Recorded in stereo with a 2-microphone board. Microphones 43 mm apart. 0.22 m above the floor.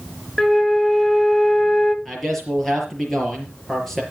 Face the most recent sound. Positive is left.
turn(degrees=10)  # may be behind; listen again after turning